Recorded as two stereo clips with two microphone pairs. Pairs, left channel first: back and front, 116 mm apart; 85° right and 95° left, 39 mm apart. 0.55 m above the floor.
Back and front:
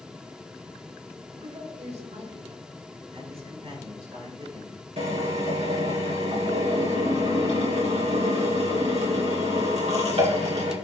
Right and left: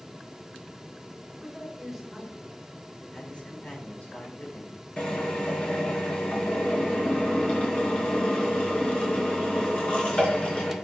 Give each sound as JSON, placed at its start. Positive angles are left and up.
{"t": 1.3, "sound": "a man speaking", "azimuth_deg": 10, "distance_m": 5.0}
{"t": 3.1, "sound": "a man speaking", "azimuth_deg": -30, "distance_m": 5.0}
{"t": 5.0, "sound": "a drill", "azimuth_deg": -25, "distance_m": 4.0}